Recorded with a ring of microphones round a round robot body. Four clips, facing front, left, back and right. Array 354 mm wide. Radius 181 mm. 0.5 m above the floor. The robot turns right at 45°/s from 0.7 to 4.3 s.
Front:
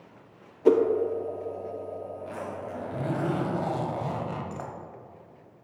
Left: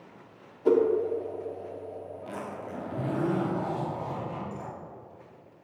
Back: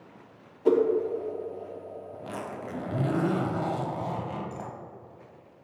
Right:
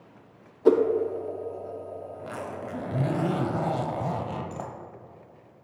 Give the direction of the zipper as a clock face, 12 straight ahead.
6 o'clock.